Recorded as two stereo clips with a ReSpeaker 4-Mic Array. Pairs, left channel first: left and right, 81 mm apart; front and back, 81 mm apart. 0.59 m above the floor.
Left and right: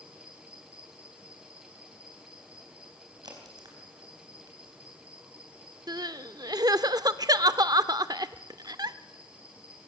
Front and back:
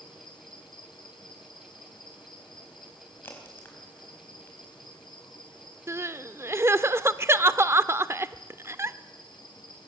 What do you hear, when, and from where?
0.0 s an insect: 20° right, 4 m
3.2 s a crack: 65° right, 4 m
5.9 s crying: 125° right, 0.6 m